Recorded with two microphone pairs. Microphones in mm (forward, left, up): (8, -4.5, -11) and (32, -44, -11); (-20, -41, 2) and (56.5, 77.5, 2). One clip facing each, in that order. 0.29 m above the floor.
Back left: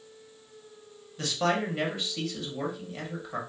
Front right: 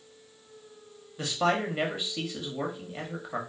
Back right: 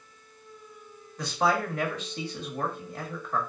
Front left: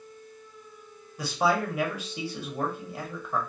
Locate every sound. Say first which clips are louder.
1.2 s a man speaking: front right 1 dB, front left 1 dB; 10° right, 0.9 m